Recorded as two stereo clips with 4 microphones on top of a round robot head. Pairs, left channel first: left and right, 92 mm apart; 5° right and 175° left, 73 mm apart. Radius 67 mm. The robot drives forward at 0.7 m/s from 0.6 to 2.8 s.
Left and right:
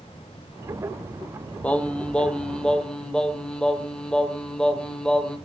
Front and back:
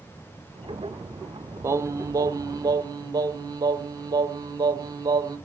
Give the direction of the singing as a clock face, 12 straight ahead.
7 o'clock.